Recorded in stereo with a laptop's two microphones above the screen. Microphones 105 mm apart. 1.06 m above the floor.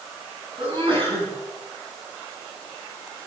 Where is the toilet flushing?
I don't hear a toilet flushing.